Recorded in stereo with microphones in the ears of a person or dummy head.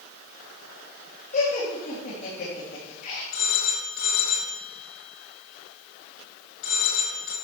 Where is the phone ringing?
65° left (ahead or behind), 3 m.